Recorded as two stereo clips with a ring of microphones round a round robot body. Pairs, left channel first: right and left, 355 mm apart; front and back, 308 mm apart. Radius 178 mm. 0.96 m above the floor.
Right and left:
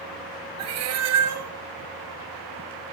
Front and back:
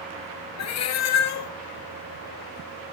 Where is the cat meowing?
40° left, 0.6 m.